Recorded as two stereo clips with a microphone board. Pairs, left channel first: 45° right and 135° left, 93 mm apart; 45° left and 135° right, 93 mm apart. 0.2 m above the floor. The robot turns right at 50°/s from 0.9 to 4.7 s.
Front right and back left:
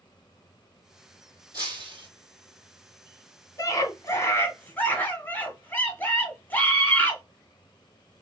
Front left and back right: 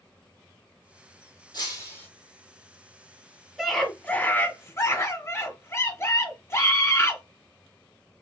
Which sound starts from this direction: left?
Breaking glass, at 1.5 s.